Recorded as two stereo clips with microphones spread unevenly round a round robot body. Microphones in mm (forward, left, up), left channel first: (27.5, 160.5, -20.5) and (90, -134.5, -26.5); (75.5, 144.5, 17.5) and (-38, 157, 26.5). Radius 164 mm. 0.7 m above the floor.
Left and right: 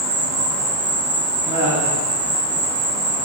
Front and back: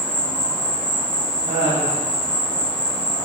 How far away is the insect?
About 0.7 m.